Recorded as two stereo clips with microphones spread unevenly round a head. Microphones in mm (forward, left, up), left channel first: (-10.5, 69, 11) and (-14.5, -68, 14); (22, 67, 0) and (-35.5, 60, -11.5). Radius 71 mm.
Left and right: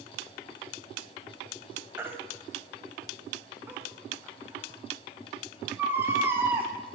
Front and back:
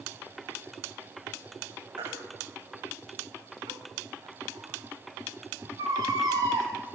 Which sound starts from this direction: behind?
A baby crying, at 2.0 s.